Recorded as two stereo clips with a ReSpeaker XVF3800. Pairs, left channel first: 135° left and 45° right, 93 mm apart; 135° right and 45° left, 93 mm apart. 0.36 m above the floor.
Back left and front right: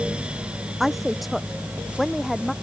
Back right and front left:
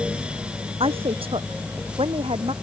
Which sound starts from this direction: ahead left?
A woman speaking, at 0.8 s.